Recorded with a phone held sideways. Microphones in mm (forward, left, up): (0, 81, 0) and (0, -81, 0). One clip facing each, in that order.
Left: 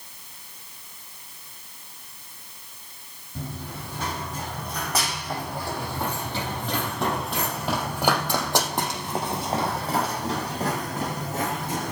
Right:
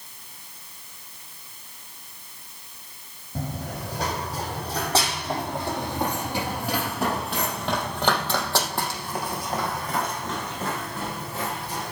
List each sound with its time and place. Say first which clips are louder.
3.4 s running footsteps: right 3 dB; 45° right (ahead or behind), 4.5 m; by 11.9 s 45° left (ahead or behind), 4.5 m